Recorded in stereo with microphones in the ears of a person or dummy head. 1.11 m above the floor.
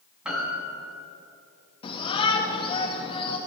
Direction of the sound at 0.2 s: Centre (ahead or behind).